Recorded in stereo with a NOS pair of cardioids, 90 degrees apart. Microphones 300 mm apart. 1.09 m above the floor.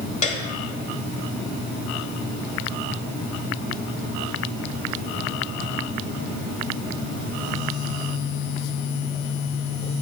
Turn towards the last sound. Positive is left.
turn(degrees=25)